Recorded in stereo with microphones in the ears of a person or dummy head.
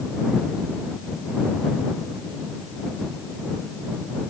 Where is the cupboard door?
I don't hear a cupboard door.